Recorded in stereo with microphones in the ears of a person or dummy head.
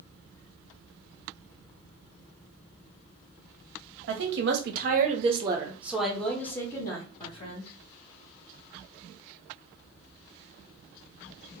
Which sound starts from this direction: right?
A woman speaking, at 4.1 s.